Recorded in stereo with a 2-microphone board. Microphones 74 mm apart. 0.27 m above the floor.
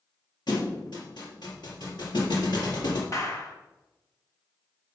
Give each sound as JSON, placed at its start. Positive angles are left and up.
{"t": 0.5, "sound": "a thud", "side_deg": 70, "distance_m": 3.5}
{"t": 3.1, "sound": "a clap", "side_deg": 45, "distance_m": 2.0}